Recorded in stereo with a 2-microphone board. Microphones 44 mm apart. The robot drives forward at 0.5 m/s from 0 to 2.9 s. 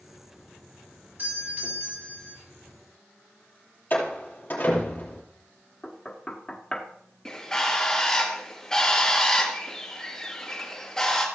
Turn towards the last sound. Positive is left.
turn(degrees=15)  # may be behind; listen again after turning